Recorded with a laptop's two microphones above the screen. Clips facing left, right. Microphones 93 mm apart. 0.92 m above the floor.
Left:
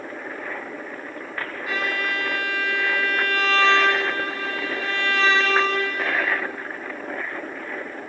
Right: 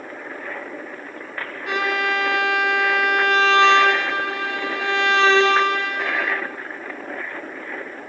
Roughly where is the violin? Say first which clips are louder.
Right 5 dB; right.